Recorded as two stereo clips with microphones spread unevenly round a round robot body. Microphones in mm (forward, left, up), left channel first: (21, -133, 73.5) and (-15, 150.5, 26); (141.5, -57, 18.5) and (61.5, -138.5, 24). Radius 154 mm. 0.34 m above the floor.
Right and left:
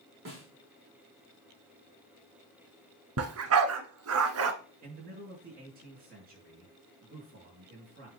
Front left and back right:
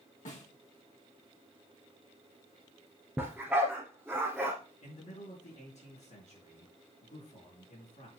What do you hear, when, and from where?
0.2 s a snare drum: 50° left, 4.5 m
3.2 s a dog barking: 140° left, 1.2 m
4.8 s a man speaking: 40° left, 5 m